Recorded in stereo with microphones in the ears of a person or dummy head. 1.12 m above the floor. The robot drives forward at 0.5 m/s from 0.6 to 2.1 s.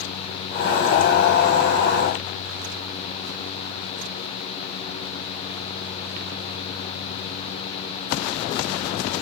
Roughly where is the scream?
No scream in this recording.